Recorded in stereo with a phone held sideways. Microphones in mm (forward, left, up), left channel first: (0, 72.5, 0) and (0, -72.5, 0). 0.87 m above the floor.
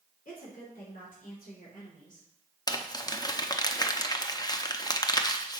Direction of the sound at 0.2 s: 70° left (ahead or behind).